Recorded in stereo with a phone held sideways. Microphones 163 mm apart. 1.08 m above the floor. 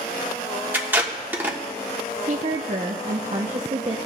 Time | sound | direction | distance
0.7 | tape being pulled | 10° right (ahead or behind) | 1.3 m
2.3 | a woman speaking | 45° right (ahead or behind) | 0.6 m